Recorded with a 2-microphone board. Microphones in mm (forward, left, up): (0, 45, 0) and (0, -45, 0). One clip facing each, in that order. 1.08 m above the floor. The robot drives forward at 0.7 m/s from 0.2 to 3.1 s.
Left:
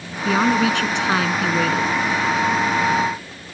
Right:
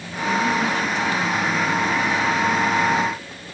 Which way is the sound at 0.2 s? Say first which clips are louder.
Left 3 dB; 85° left.